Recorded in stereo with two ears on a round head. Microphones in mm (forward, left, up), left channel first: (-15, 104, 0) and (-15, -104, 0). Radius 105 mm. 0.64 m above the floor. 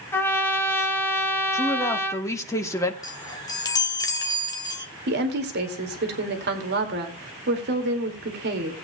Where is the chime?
15° left (ahead or behind), 1.5 m.